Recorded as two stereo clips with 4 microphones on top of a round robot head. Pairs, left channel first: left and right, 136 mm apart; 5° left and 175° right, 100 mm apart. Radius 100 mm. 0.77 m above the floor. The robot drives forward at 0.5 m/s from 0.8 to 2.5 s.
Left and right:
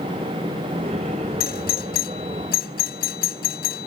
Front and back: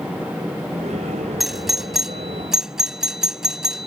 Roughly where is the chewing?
I don't hear chewing.